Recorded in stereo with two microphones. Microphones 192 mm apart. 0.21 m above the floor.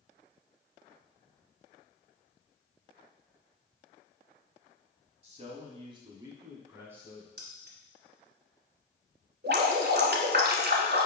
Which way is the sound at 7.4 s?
55° right (ahead or behind).